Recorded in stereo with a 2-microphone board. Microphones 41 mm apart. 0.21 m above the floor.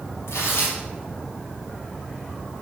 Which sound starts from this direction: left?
Tearing paper, at 0.3 s.